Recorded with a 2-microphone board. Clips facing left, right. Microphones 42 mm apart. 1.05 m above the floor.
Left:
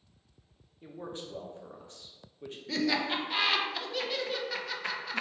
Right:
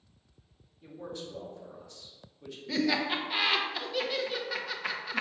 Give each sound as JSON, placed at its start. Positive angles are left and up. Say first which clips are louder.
{"t": 0.8, "sound": "a man speaking", "louder": "even", "side_deg": 40, "distance_m": 0.9}
{"t": 2.7, "sound": "laughter", "louder": "right 1 dB", "side_deg": -5, "distance_m": 0.6}